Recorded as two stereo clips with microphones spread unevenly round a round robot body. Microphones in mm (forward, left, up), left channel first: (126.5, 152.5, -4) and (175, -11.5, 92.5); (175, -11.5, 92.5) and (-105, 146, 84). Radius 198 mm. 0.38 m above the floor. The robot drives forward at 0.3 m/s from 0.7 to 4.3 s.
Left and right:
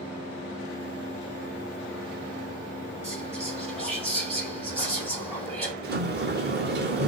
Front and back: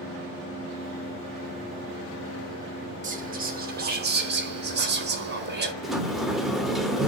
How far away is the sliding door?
About 1.0 m.